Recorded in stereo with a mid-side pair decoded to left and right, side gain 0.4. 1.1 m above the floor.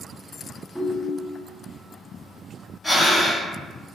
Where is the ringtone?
5° left, 1.5 m.